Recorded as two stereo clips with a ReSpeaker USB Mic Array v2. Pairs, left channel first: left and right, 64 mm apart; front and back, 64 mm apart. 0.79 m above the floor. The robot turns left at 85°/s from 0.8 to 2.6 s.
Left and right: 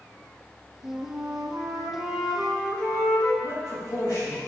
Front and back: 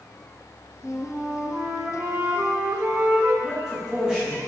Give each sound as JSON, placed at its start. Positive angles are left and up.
{"t": 0.8, "sound": "a flute", "azimuth_deg": -50, "distance_m": 1.1}
{"t": 3.4, "sound": "a man speaking", "azimuth_deg": 100, "distance_m": 1.9}